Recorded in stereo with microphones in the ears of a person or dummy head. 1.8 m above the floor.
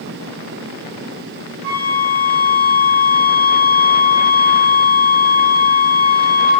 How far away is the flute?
About 1.0 m.